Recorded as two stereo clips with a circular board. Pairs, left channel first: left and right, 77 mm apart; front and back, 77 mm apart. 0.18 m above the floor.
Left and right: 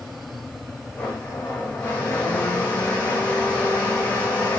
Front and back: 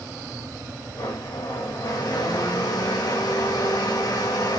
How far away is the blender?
About 7 m.